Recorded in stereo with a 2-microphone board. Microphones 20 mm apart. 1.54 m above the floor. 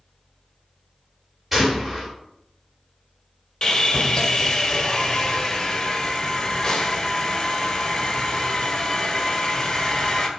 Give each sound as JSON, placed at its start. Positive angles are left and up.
{"t": 1.5, "sound": "a gunshot", "side_deg": -5, "distance_m": 3.5}
{"t": 3.6, "sound": "sawing", "side_deg": 35, "distance_m": 1.7}